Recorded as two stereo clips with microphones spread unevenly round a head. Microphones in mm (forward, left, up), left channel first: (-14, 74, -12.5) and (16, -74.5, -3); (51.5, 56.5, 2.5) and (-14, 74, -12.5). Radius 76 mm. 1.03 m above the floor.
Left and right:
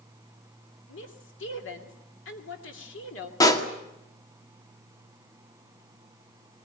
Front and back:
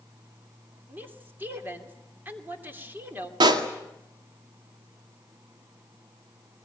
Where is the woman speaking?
105° left, 3 m.